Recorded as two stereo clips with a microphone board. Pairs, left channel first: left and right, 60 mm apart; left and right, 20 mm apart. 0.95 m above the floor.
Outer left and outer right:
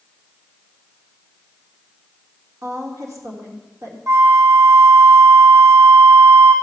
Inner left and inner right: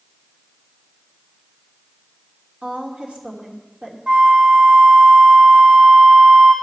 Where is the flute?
70° right (ahead or behind), 4 m.